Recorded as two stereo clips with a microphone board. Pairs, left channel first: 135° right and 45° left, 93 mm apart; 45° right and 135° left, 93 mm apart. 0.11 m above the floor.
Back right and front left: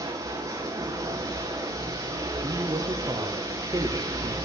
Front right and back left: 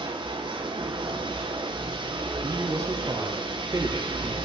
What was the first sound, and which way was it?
Running water, 100° left.